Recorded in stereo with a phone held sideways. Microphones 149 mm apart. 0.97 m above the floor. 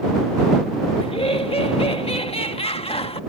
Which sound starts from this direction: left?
Laughter, at 1.0 s.